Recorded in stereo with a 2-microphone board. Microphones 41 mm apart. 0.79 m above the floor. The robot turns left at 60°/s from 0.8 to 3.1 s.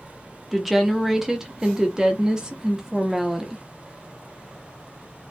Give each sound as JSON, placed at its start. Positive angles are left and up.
{"t": 0.5, "sound": "a woman speaking", "side_deg": -5, "distance_m": 0.6}